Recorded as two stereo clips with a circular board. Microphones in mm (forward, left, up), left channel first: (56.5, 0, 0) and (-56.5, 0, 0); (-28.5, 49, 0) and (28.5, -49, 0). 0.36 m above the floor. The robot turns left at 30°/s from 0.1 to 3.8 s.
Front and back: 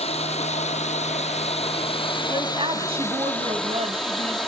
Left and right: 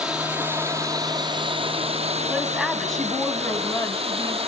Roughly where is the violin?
No violin in this recording.